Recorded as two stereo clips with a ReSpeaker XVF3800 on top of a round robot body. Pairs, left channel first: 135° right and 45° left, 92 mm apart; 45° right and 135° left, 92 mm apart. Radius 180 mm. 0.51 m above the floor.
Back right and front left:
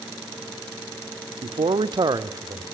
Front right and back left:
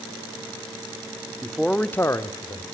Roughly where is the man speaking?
Ahead left.